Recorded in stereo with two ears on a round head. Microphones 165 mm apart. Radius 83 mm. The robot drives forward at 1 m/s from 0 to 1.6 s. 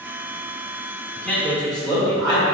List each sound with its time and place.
1.1 s a man speaking: 10° left (ahead or behind), 1.1 m; by 2.4 s 5° left (ahead or behind), 1.5 m